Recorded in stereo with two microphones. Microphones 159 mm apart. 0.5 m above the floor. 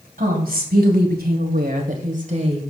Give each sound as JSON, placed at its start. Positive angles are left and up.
{"t": 0.2, "sound": "a woman speaking", "side_deg": -65, "distance_m": 2.5}